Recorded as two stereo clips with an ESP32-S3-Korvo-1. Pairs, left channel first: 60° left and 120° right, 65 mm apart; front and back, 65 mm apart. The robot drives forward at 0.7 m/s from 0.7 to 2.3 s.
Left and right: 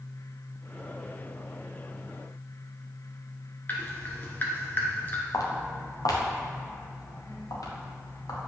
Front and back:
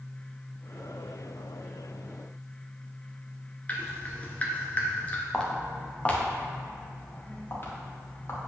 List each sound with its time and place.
3.7 s dripping: 40° left, 1.2 m
5.3 s footsteps: 80° left, 1.6 m; by 8.4 s 50° left, 2.5 m